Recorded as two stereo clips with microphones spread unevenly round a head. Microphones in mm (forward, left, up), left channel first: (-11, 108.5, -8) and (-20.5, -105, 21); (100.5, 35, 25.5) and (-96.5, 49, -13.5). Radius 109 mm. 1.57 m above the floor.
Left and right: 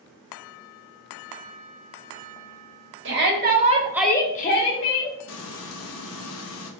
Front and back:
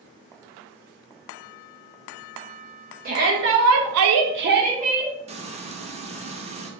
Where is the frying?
115° left, 0.6 m.